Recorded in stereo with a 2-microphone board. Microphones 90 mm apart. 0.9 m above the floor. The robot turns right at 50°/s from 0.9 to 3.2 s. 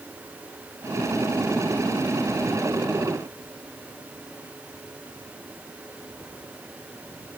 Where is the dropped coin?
I don't hear a dropped coin.